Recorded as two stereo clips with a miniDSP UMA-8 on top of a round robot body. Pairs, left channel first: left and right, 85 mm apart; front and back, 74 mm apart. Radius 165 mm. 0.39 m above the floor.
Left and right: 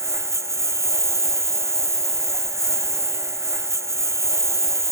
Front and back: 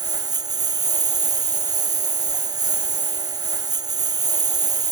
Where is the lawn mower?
150° right.